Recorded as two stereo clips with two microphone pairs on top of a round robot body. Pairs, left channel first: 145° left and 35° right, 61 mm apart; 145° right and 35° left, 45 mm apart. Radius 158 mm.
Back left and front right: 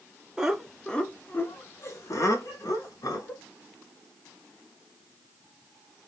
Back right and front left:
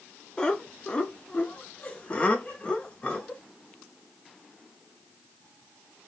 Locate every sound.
0.4 s laughter: 100° right, 0.9 m; by 3.4 s 145° left, 1.9 m